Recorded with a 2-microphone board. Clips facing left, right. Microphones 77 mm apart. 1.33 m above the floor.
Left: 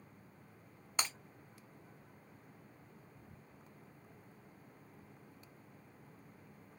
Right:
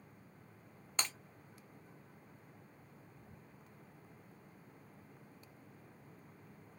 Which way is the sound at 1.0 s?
5° left (ahead or behind).